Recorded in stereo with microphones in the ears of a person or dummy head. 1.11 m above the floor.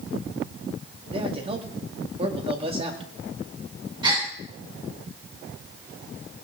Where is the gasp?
25° right (ahead or behind), 3 m.